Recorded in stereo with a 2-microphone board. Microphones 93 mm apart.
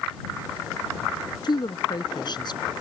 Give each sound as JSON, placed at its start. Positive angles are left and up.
{"t": 1.4, "sound": "a woman speaking", "side_deg": 55}